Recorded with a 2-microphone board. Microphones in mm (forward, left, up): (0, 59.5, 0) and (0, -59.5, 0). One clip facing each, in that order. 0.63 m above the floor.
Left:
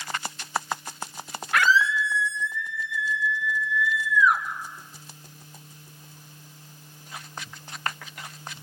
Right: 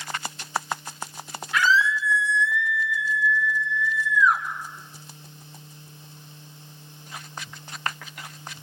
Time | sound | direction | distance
1.5 | a scream | 65° left (ahead or behind) | 1.7 m